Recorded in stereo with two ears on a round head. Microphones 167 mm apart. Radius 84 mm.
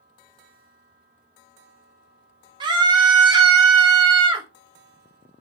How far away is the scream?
About 0.6 m.